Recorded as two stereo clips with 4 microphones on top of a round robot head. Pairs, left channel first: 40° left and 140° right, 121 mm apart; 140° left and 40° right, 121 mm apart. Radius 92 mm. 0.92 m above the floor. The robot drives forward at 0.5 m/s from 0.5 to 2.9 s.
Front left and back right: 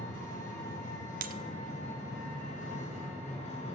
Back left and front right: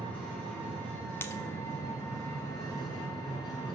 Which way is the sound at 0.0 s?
65° left.